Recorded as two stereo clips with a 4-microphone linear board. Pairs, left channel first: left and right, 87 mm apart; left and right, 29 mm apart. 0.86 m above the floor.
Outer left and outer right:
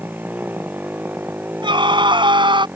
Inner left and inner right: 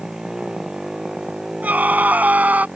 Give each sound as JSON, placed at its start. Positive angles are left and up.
{"t": 0.0, "sound": "a motorcycle", "side_deg": -20}
{"t": 1.6, "sound": "a scream", "side_deg": -75}